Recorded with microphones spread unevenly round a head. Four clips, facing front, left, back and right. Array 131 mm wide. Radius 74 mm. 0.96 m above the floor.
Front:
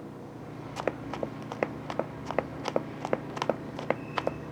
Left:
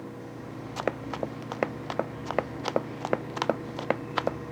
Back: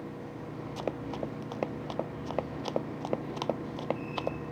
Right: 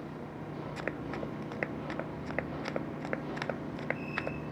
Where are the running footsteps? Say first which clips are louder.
Left 8 dB, front 3 dB; 30° left.